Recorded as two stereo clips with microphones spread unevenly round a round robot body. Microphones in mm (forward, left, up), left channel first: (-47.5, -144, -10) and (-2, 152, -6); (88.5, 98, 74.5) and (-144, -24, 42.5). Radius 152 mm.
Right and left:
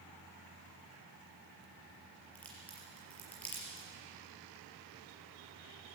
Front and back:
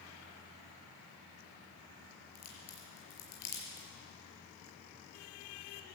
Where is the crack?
15° right, 5 m.